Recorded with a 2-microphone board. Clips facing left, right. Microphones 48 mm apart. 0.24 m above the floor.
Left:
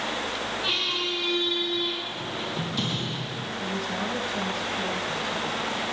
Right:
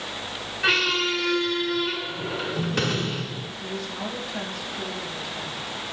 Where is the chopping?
No chopping in this recording.